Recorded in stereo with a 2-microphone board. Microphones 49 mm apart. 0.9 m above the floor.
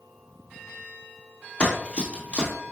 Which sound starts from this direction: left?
Running footsteps, at 1.6 s.